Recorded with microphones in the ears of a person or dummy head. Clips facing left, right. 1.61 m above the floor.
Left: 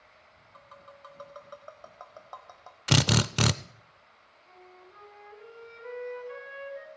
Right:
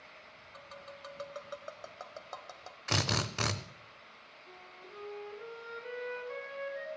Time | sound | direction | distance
0.5 | tapping | 25° right (ahead or behind) | 1.2 m
2.9 | a drill | 45° left (ahead or behind) | 0.6 m
4.5 | a flute | 5° right (ahead or behind) | 4.5 m